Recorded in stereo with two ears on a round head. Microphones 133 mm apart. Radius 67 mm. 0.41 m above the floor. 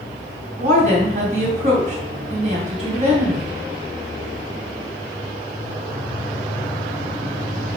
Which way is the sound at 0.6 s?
55° right (ahead or behind).